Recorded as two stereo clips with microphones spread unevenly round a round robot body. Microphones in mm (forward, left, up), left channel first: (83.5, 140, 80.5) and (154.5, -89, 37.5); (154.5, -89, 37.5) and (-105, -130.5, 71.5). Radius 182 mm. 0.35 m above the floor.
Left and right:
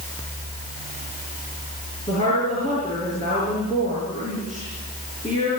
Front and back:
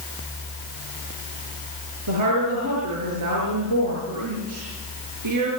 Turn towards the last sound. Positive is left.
turn(degrees=-175)